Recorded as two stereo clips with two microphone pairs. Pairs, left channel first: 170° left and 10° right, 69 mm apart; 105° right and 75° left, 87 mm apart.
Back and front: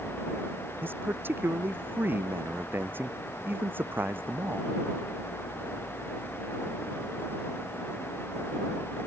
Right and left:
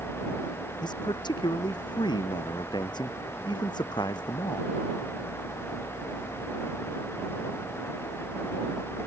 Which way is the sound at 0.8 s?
70° right.